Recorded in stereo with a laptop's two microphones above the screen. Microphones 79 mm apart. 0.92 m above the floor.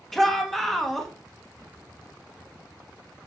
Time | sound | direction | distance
0.1 | a shout | 5° left (ahead or behind) | 1.3 m